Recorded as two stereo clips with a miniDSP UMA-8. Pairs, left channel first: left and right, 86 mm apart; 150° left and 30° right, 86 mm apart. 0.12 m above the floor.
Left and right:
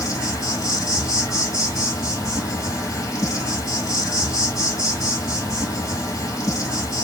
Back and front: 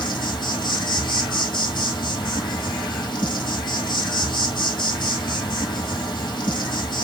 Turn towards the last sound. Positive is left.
turn(degrees=130)